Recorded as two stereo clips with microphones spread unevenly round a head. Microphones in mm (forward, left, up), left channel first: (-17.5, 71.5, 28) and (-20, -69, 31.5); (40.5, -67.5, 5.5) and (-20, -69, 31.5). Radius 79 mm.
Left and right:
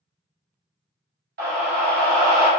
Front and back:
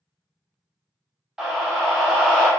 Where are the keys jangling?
I don't hear keys jangling.